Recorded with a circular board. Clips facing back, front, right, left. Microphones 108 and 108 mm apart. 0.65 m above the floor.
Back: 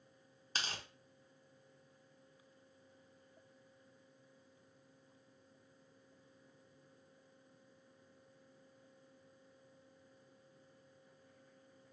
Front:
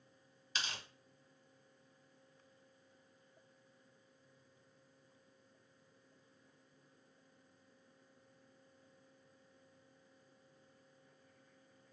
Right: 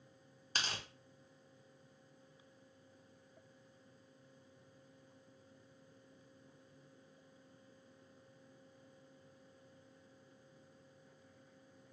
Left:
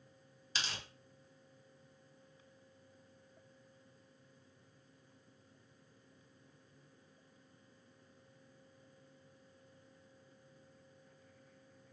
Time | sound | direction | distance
0.6 | tearing paper | 130° right | 1.2 m